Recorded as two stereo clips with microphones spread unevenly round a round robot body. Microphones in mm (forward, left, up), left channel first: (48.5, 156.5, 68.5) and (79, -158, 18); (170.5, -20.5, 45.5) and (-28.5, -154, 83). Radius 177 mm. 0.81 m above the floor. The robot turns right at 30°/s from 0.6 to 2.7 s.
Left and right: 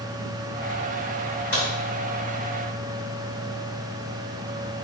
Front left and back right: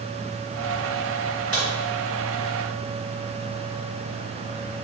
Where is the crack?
140° left, 1.8 m; by 1.7 s 145° left, 1.8 m.